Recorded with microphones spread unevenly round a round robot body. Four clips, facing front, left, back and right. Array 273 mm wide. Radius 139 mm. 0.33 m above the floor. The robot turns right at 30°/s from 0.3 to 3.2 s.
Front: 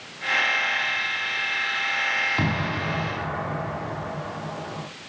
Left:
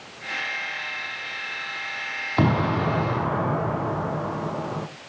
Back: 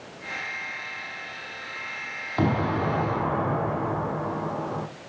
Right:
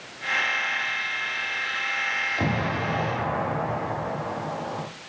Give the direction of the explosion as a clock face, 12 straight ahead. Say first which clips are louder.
Left 7 dB, back 2 dB; 9 o'clock.